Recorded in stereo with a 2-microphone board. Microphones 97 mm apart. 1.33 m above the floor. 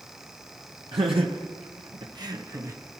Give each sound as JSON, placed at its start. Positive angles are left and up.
{"t": 0.9, "sound": "laughter", "side_deg": -60, "distance_m": 1.3}